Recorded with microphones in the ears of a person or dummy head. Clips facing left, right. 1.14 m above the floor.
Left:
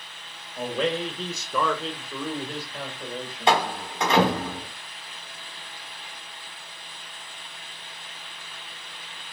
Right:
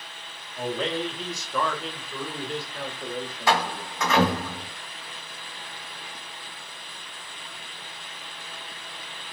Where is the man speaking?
40° left (ahead or behind), 1.2 m; by 3.9 s 20° left (ahead or behind), 2.5 m.